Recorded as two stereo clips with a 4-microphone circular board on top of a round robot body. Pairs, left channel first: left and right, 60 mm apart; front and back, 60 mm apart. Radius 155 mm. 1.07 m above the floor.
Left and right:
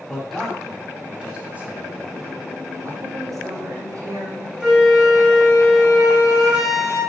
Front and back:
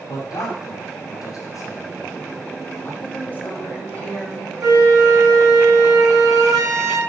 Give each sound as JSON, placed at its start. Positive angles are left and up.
{"t": 0.1, "sound": "a man speaking", "azimuth_deg": 0, "distance_m": 3.0}
{"t": 3.0, "sound": "a woman speaking", "azimuth_deg": -65, "distance_m": 1.8}
{"t": 4.6, "sound": "a flute", "azimuth_deg": -170, "distance_m": 3.0}